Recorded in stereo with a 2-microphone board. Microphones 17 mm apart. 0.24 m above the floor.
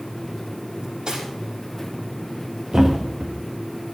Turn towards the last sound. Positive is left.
turn(degrees=-55)  # may be behind; listen again after turning